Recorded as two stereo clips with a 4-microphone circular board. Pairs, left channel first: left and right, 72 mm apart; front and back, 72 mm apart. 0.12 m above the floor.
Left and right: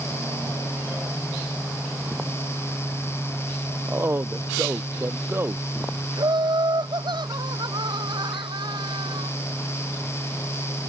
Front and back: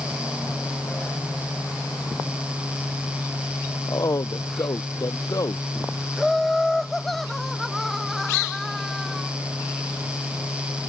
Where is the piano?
I don't hear a piano.